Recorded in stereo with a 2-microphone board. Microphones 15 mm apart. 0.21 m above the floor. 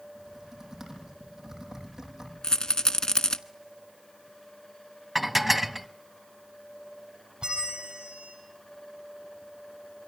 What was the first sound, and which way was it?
Typing on a keyboard, 30° right (ahead or behind).